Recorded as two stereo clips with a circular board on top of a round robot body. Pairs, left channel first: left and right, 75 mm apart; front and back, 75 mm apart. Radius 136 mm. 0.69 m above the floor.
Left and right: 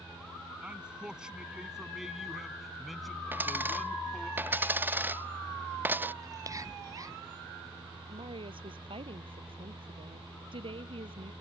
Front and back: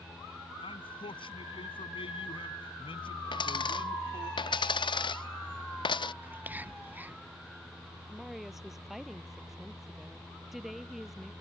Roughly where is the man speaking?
Ahead.